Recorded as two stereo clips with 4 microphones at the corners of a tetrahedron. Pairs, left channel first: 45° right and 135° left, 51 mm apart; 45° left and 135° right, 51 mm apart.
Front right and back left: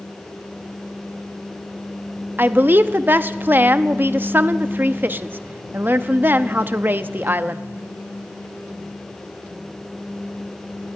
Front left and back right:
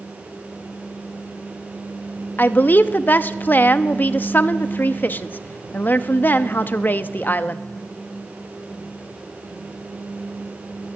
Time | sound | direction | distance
2.4 | a woman speaking | 90° left | 0.7 m